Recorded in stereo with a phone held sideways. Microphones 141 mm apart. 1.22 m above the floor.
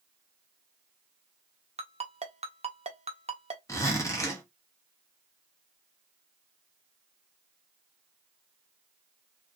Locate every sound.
1.8 s a ringtone: 50° right (ahead or behind), 0.6 m
3.7 s a zipper: 20° left (ahead or behind), 1.0 m